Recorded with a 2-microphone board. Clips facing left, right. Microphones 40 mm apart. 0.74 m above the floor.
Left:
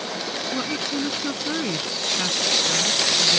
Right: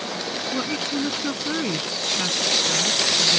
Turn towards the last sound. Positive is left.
turn(degrees=-5)  # may be behind; listen again after turning